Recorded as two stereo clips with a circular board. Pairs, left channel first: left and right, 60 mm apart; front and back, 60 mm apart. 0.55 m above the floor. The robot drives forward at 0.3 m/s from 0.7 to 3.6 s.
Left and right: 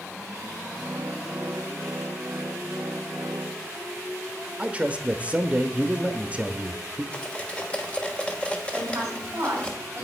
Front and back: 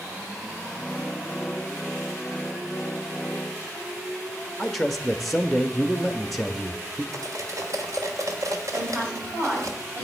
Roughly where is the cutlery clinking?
Behind.